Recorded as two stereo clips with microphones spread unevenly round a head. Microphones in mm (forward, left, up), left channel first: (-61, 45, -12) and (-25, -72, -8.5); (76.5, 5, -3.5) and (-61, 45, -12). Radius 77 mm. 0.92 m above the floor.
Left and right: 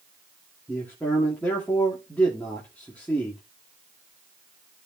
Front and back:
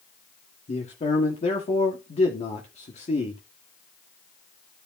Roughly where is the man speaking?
Ahead left.